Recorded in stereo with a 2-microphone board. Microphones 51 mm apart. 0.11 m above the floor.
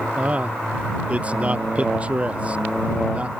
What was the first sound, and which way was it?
A man speaking, 30° right (ahead or behind).